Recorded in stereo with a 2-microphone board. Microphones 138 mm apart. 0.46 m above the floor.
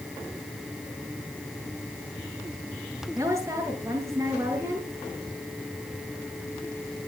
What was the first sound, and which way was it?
A woman speaking, 20° right (ahead or behind).